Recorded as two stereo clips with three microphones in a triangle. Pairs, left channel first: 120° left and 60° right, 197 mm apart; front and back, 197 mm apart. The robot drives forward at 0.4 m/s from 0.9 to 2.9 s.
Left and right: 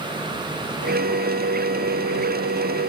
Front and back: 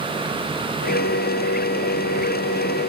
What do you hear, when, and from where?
Only background noise.